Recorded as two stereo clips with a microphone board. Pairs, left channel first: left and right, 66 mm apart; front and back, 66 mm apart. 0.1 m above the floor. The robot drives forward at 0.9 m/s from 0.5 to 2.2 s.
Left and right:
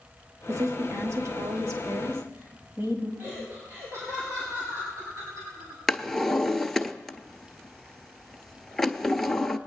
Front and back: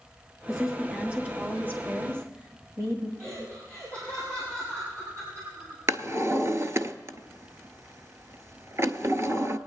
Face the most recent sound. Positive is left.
turn(degrees=175)